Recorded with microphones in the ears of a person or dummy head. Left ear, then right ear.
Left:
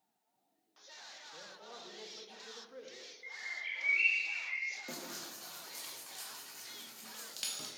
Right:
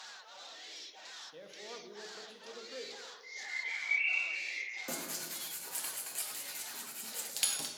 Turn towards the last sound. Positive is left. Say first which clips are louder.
# right 3 dB
turn(degrees=-15)  # may be behind; listen again after turning